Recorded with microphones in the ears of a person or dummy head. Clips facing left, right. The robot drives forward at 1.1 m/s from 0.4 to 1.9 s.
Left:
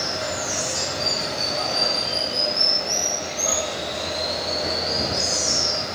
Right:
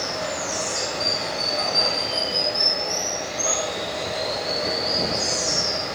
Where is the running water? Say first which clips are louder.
Even; 10° left (ahead or behind), 0.9 m; by 6.0 s 5° left (ahead or behind), 2.5 m.